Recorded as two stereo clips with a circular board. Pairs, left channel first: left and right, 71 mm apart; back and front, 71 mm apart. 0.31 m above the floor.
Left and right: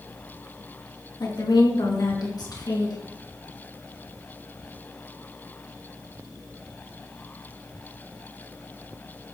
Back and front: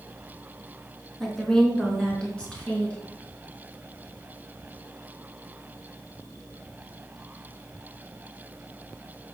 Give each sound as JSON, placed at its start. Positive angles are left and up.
{"t": 1.2, "sound": "a woman speaking", "azimuth_deg": 95, "distance_m": 4.0}